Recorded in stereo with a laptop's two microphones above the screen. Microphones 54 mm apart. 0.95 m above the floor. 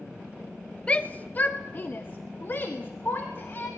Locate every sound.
0.9 s a shout: 20° left (ahead or behind), 0.8 m; by 3.7 s 40° left (ahead or behind), 2.5 m